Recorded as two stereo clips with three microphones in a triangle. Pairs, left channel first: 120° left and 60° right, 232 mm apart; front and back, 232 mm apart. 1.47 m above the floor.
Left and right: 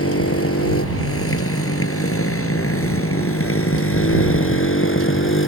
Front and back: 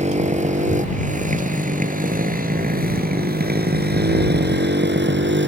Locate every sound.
0.0 s a motorcycle: 120° left; by 5.5 s 145° left